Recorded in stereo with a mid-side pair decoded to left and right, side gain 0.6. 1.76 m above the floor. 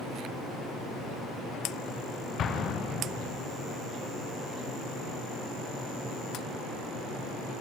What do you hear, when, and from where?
2.4 s an explosion: 45° left, 1.0 m